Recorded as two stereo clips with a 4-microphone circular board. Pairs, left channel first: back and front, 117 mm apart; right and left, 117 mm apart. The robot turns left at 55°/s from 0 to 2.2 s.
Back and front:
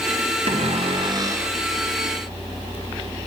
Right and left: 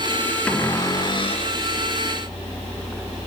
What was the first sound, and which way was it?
A cupboard door, 10° right.